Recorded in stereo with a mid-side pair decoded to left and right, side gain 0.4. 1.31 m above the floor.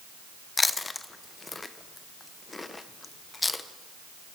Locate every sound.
0.6 s chewing: 25° left, 0.7 m